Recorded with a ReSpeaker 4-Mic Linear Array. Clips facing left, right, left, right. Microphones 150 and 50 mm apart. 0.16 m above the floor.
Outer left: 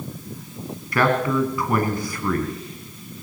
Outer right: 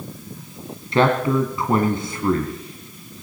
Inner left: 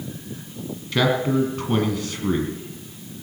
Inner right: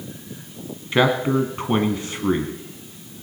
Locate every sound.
0.9 s a man speaking: 25° right (ahead or behind), 1.6 m